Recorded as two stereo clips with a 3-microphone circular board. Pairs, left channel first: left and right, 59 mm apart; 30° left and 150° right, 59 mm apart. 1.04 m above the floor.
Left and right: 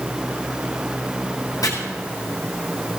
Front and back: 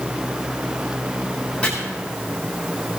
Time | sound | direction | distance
1.6 | chopping | 100° left | 7.5 m